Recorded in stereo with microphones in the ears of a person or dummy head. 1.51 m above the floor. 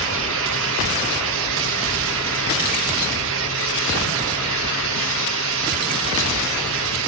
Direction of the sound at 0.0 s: 70° right (ahead or behind).